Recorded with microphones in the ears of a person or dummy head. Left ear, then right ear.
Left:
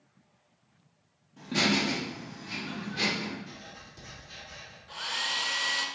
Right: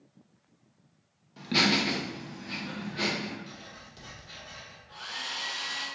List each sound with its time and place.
1.4 s laughter: 55° right (ahead or behind), 1.0 m; by 3.4 s 10° left (ahead or behind), 1.3 m
3.5 s writing: 50° right (ahead or behind), 1.4 m
4.9 s a hair dryer: 40° left (ahead or behind), 0.5 m